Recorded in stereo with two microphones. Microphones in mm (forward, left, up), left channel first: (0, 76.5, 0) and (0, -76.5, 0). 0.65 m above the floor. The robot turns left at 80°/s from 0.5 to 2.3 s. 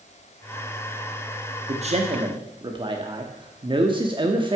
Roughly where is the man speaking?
Right.